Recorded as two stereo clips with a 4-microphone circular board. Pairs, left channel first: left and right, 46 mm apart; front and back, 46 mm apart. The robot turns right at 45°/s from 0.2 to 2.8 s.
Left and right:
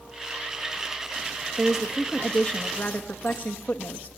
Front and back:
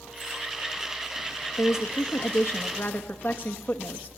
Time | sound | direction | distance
1.6 | a woman speaking | 15° right | 1.4 m